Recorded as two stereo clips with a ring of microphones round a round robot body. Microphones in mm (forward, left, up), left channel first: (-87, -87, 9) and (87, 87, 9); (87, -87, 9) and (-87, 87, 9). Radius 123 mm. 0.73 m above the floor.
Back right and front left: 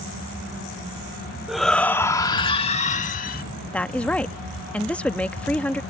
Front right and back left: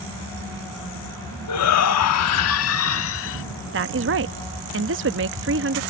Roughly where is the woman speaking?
Behind left.